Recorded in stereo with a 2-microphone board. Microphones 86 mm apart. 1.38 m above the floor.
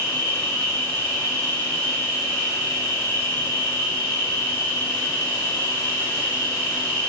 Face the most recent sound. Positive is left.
turn(degrees=35)  # may be behind; listen again after turning